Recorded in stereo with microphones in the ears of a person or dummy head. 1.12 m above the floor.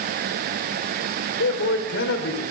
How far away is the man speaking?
About 5 m.